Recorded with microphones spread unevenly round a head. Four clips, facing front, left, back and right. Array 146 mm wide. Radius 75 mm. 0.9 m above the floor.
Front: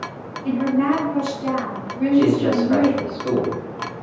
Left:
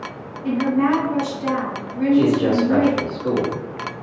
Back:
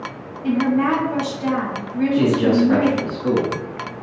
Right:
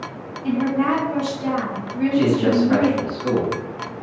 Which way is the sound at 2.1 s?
165° right.